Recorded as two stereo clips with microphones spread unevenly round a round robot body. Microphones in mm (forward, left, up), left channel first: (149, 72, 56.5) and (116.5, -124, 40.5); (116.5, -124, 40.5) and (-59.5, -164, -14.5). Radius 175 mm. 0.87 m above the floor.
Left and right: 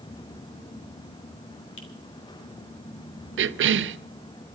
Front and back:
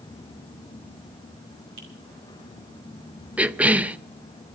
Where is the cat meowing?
I don't hear a cat meowing.